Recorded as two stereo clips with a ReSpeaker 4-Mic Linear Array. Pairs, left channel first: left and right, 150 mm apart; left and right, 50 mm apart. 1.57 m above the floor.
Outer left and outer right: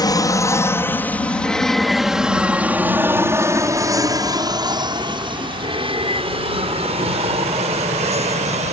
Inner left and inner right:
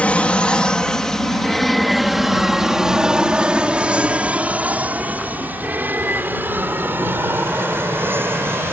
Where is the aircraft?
25° left (ahead or behind); by 8.7 s 45° right (ahead or behind).